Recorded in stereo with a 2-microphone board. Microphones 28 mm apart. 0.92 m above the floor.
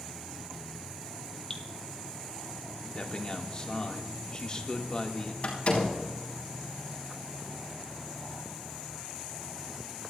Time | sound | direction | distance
1.5 | dripping | 35° left (ahead or behind) | 1.3 m
3.0 | a man speaking | 35° left (ahead or behind) | 1.8 m
5.4 | a door slam | 50° left (ahead or behind) | 4.5 m